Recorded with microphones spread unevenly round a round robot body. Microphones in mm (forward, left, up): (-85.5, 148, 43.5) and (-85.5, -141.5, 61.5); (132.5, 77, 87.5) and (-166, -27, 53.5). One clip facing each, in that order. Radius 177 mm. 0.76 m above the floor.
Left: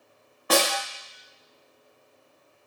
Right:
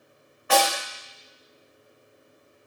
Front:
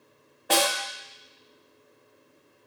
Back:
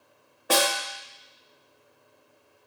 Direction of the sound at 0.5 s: 125° left.